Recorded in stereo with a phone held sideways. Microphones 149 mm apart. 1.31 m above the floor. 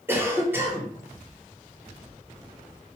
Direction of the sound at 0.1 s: 15° right (ahead or behind).